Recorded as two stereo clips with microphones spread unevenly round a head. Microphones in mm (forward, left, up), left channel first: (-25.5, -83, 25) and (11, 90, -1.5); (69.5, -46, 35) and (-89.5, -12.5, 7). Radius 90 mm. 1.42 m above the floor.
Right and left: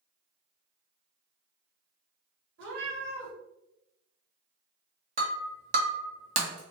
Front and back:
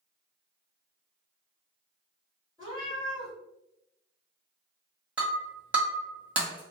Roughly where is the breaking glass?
Left.